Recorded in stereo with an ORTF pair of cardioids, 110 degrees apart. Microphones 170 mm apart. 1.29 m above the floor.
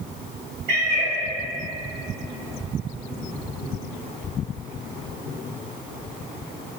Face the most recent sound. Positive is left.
turn(degrees=-60)